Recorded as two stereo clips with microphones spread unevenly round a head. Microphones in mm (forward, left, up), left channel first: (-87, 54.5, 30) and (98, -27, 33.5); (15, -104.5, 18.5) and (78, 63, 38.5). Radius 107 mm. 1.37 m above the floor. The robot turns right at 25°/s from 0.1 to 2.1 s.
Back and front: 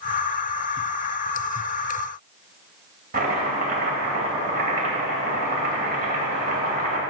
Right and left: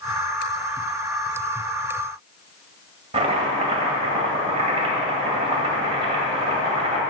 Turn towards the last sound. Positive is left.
turn(degrees=20)